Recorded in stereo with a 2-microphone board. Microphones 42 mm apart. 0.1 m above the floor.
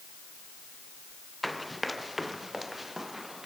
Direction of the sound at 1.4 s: Centre (ahead or behind).